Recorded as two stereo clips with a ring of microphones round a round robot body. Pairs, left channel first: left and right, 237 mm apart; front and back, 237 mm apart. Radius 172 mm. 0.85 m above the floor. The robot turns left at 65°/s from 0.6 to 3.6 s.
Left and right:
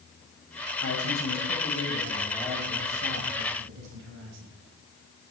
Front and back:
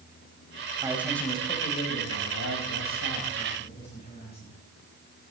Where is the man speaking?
110° left, 5 m; by 4.5 s 75° right, 5 m.